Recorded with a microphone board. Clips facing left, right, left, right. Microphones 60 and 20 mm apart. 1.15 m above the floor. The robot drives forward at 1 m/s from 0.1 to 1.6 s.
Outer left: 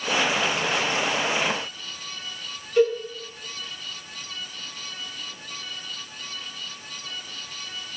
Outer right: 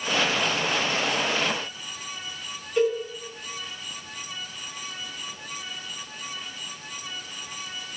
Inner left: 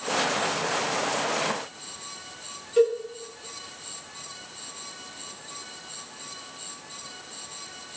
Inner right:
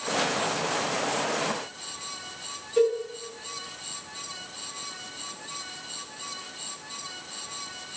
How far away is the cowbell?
About 2 m.